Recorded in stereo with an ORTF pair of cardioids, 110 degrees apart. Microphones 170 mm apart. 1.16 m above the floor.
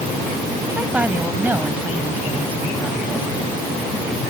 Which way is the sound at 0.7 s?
10° right.